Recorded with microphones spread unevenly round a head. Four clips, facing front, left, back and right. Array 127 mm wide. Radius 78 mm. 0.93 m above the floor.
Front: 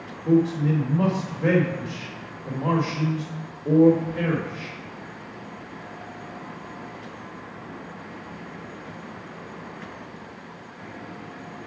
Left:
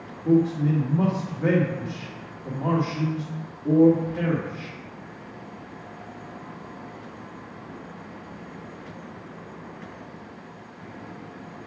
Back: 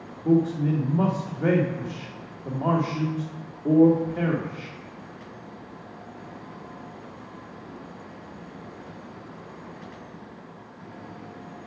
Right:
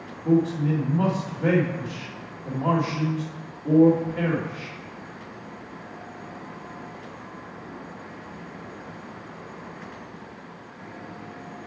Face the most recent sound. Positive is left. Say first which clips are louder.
# left 1 dB, front 1 dB
turn(degrees=170)